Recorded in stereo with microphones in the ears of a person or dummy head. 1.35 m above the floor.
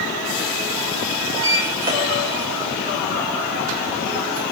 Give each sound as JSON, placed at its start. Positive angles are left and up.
{"t": 1.3, "sound": "a sliding door", "side_deg": -15, "distance_m": 2.5}